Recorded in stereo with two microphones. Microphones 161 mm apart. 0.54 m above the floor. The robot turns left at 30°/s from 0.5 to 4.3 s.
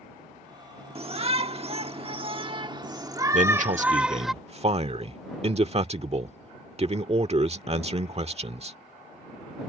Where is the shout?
75° right; by 4.3 s 175° right.